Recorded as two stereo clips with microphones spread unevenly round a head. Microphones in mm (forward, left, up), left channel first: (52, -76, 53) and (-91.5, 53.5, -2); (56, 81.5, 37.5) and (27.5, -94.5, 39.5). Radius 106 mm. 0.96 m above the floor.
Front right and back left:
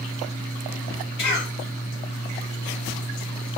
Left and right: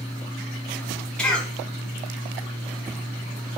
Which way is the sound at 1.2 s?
Straight ahead.